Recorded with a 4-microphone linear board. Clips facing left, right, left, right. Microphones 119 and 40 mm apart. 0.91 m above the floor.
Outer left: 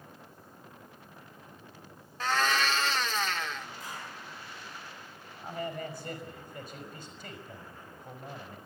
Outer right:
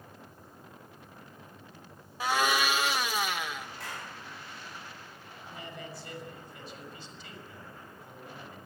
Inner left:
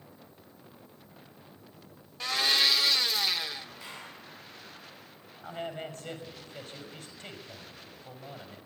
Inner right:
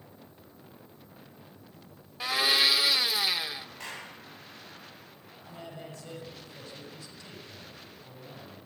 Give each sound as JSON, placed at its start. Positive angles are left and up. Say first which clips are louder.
{"t": 2.2, "sound": "a blender", "louder": "outer right 1 dB, inner right 1 dB", "side_deg": -10, "distance_m": 0.7}
{"t": 3.8, "sound": "a clap", "louder": "outer right 1 dB, inner right 3 dB", "side_deg": -75, "distance_m": 6.0}
{"t": 5.4, "sound": "a man speaking", "louder": "outer left 8 dB, inner left 7 dB", "side_deg": 45, "distance_m": 6.0}